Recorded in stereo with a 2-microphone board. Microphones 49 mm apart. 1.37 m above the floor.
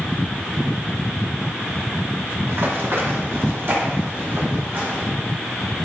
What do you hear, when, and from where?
2.5 s running footsteps: 60° right (ahead or behind), 3 m; by 5.0 s 45° right (ahead or behind), 4.5 m